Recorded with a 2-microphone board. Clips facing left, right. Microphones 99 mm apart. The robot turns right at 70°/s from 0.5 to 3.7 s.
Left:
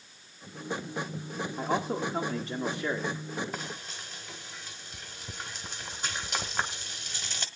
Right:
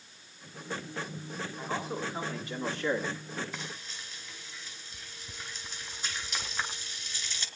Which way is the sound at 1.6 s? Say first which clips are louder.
Left 6 dB; 80° left.